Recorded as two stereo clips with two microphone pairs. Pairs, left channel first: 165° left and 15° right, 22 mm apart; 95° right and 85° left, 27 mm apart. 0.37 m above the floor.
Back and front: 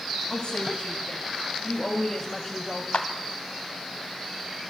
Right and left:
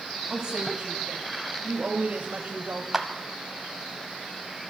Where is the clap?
160° left, 1.6 m.